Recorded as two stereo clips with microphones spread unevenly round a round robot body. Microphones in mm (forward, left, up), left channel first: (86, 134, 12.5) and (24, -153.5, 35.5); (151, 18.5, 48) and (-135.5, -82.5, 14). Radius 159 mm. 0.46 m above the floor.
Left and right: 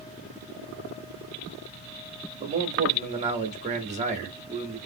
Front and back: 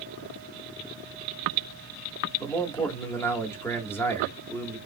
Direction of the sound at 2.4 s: 70° right.